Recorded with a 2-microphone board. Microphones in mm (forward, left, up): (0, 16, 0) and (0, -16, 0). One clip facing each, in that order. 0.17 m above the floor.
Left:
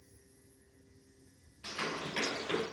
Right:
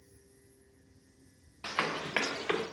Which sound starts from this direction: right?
Running footsteps, at 1.6 s.